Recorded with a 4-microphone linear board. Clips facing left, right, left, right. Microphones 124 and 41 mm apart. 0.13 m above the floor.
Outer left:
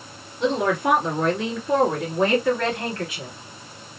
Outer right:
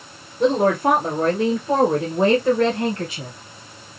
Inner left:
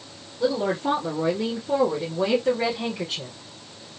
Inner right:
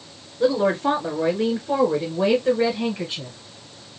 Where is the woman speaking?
45° right (ahead or behind), 1.6 m; by 3.4 s 10° right (ahead or behind), 2.0 m.